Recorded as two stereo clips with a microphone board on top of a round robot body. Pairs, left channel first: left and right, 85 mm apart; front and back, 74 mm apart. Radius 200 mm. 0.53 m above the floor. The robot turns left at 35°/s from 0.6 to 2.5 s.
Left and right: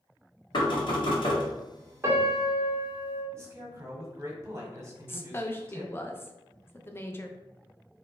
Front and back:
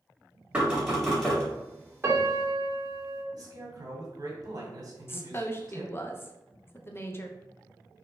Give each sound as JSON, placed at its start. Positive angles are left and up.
{"t": 0.5, "sound": "knocking", "azimuth_deg": 105, "distance_m": 2.0}
{"t": 2.0, "sound": "a piano", "azimuth_deg": -140, "distance_m": 1.8}
{"t": 3.3, "sound": "a man speaking", "azimuth_deg": -145, "distance_m": 1.9}
{"t": 5.1, "sound": "a woman speaking", "azimuth_deg": 40, "distance_m": 0.9}